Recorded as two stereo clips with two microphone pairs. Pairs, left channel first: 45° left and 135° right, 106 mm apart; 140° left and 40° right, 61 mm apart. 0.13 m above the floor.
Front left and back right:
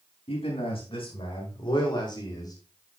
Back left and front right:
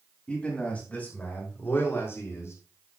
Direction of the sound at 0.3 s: 65° left.